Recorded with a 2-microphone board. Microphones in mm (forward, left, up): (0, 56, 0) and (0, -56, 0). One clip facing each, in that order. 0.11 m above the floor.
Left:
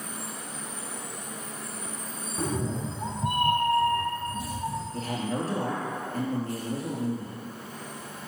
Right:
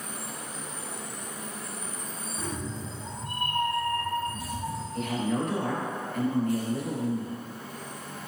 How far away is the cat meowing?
About 1.4 m.